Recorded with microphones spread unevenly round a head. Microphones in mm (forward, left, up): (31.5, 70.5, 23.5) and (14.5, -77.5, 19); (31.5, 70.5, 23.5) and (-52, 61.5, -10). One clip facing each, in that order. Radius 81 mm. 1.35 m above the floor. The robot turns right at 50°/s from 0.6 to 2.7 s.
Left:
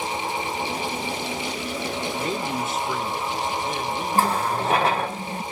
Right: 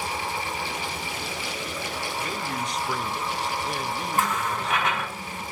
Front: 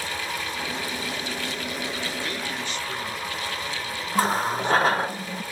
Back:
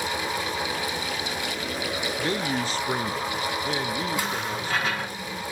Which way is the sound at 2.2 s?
145° left.